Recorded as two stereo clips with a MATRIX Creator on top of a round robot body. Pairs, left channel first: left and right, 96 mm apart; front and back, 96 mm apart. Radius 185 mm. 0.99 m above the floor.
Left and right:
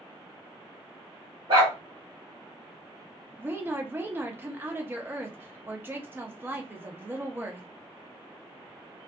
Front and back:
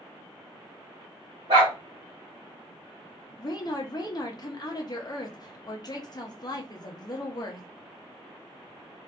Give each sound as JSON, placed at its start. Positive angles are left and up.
{"t": 1.5, "sound": "a dog barking", "azimuth_deg": -135, "distance_m": 0.6}
{"t": 3.4, "sound": "a woman speaking", "azimuth_deg": -30, "distance_m": 0.9}